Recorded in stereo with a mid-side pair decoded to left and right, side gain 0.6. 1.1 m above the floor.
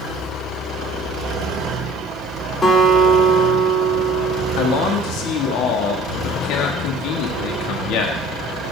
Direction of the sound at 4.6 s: 70° left.